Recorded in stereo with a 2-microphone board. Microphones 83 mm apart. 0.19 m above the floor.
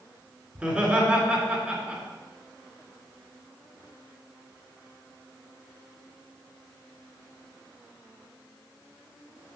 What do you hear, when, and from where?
0.6 s laughter: 15° right (ahead or behind), 3 m